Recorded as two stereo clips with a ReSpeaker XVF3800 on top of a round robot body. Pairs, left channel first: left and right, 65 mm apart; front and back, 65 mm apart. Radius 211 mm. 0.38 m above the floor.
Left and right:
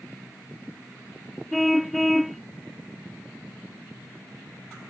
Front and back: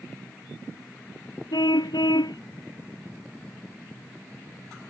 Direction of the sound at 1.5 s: Straight ahead.